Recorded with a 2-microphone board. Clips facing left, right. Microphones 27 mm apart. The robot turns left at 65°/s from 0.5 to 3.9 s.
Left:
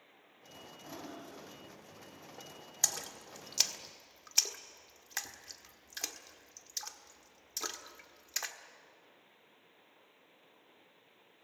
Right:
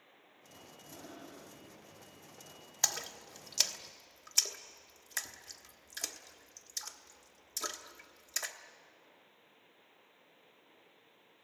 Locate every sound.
0.8 s breathing: 40° left, 5 m; by 1.5 s 5° right, 5 m
2.8 s a splash: 20° right (ahead or behind), 1.2 m; by 8.6 s 15° left (ahead or behind), 1.2 m